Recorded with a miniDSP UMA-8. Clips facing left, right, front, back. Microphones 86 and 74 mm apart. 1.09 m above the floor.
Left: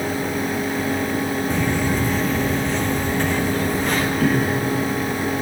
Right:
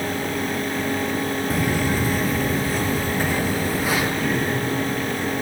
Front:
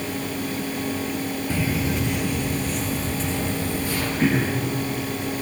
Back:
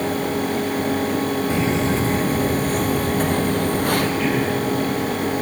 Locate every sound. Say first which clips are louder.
1.5 s footsteps: even, back 2 dB; 160° right, 1.1 m; by 4.1 s 170° right, 2.5 m
4.2 s throat clearing: left 4 dB, back 1 dB; 55° left, 4.5 m